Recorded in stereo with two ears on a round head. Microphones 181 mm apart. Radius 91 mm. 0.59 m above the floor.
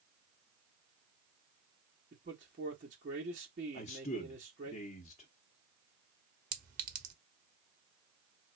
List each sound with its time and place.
2.1 s a man speaking: 40° right (ahead or behind), 1.1 m
3.7 s a man speaking: 35° left (ahead or behind), 0.6 m
6.5 s a clink: 45° right (ahead or behind), 0.8 m